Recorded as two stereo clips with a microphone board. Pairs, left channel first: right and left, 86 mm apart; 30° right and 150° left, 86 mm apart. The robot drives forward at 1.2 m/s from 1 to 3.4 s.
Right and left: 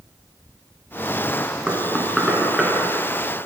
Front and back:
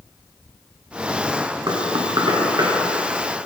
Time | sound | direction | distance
1.7 | knocking | 175° left | 1.7 m